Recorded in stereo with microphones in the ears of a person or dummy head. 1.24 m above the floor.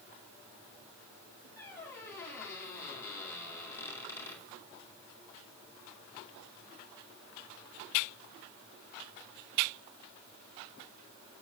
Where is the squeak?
15° left (ahead or behind), 1.8 m.